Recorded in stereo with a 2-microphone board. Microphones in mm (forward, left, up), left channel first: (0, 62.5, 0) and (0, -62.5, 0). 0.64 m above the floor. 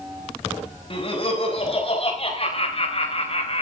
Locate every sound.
0.9 s laughter: 40° left (ahead or behind), 4.5 m; by 3.6 s 50° left (ahead or behind), 3 m